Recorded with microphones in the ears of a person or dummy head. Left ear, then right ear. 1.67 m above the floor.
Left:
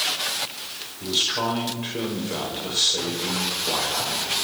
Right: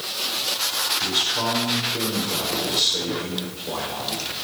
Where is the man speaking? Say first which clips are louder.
Left 4 dB; 15° left (ahead or behind), 5 m.